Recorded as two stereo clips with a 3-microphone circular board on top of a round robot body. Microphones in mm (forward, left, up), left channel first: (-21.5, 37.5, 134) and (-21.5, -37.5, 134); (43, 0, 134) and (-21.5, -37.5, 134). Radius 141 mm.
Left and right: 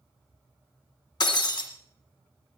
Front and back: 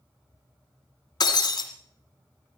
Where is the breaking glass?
65° left, 1.6 m.